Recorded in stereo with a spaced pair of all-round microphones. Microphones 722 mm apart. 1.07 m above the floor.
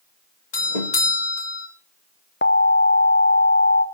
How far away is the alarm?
About 0.8 m.